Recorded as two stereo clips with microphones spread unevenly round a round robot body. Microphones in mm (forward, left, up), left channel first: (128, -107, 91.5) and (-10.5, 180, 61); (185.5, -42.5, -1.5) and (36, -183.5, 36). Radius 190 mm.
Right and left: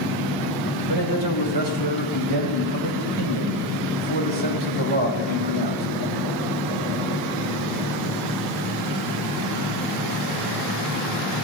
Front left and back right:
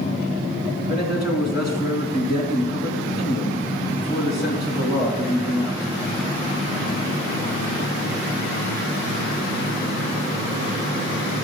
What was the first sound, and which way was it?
A man speaking, 120° left.